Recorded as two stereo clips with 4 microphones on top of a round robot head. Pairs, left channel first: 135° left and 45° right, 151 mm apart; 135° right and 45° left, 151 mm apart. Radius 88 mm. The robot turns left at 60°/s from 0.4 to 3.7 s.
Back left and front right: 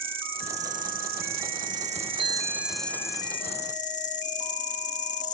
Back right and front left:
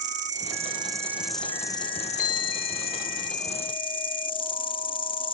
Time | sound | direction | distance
0.0 | an insect | 10° left | ?
2.2 | a bicycle bell | 100° right | ?